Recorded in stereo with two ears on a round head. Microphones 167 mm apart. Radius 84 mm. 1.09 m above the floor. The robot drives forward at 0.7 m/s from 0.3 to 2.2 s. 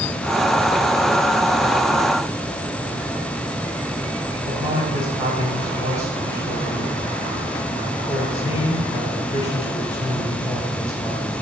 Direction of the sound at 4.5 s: 20° right (ahead or behind).